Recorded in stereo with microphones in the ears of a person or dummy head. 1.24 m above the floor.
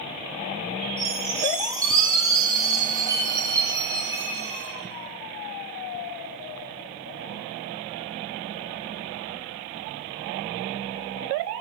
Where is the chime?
15° right (ahead or behind), 9 m.